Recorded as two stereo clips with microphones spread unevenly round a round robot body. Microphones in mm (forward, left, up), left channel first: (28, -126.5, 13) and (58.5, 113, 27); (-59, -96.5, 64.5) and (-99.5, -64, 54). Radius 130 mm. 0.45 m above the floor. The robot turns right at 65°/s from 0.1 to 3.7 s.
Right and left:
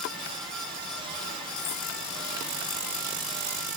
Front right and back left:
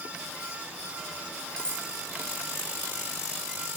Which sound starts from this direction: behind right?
Cutlery clinking, at 1.6 s.